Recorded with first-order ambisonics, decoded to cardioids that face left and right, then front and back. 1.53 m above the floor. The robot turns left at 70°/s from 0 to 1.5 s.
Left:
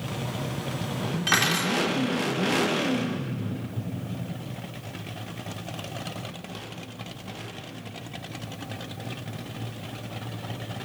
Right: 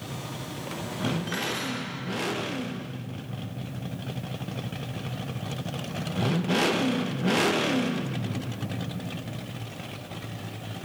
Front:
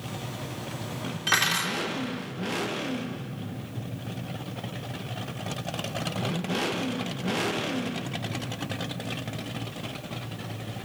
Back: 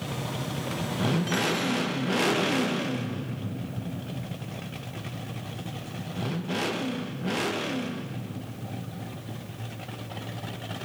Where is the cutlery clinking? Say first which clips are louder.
Left 7 dB, front 7 dB; 60° left, 2.5 m; by 1.8 s 45° left, 2.5 m.